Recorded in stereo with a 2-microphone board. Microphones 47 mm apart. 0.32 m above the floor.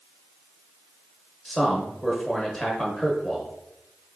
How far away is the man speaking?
About 1.0 m.